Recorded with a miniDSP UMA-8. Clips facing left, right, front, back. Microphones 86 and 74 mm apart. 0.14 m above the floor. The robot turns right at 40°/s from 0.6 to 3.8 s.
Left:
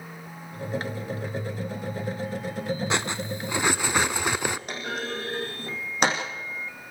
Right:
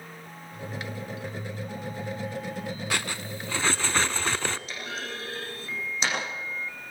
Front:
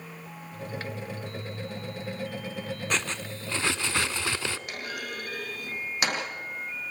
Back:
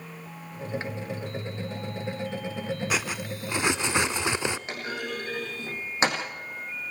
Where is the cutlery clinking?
110° left, 0.6 m; by 4.6 s 145° left, 0.6 m.